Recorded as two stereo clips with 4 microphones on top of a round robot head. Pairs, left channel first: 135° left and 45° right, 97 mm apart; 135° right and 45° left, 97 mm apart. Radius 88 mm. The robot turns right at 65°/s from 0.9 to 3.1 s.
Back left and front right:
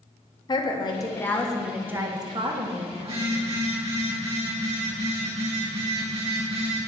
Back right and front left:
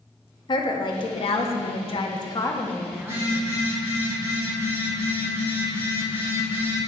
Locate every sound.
0.5 s a woman speaking: straight behind, 1.9 m; by 3.2 s 35° right, 1.9 m
3.0 s a phone buzzing: 25° right, 5 m; by 6.8 s 20° right, 5 m